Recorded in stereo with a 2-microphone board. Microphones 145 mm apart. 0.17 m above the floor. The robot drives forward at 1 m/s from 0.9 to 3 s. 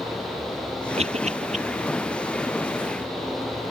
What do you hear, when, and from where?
1.0 s a cough: 45° right (ahead or behind); by 1.6 s 50° right (ahead or behind)